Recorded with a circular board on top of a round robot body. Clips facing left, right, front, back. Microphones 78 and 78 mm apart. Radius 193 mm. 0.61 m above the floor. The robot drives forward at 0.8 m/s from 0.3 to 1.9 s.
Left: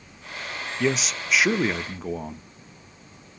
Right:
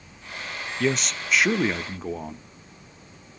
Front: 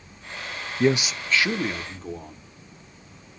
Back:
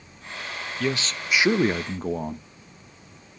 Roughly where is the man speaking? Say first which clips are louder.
Even, front 6 dB; ahead.